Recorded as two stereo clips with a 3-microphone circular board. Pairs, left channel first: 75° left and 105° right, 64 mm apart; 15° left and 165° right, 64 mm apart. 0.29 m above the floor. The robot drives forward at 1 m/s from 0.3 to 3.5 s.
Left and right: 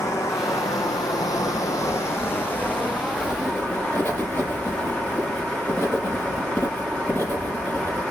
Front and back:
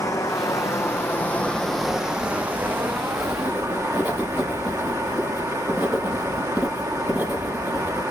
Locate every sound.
0.0 s running water: 40° left, 1.6 m; by 8.1 s 150° left, 2.5 m
3.1 s writing: 125° left, 6 m; by 8.0 s 130° left, 6 m